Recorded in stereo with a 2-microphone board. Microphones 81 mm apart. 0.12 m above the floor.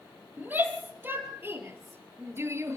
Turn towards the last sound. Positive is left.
turn(degrees=-35)  # may be behind; listen again after turning